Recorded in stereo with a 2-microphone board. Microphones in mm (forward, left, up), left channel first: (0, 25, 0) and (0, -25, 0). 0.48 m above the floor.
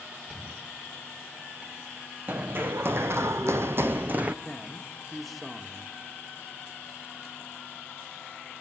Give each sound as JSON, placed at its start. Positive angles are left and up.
{"t": 0.3, "sound": "a thud", "side_deg": -15, "distance_m": 9.5}
{"t": 2.3, "sound": "running footsteps", "side_deg": -35, "distance_m": 1.5}
{"t": 4.5, "sound": "a man speaking", "side_deg": 5, "distance_m": 1.4}